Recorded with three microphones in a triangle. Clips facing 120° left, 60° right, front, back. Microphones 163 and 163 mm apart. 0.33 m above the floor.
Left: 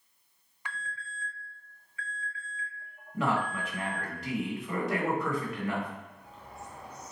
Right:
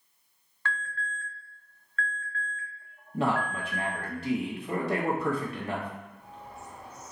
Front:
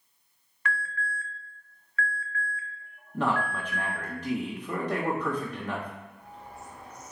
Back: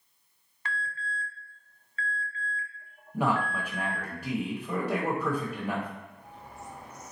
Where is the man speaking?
105° right, 1.4 m.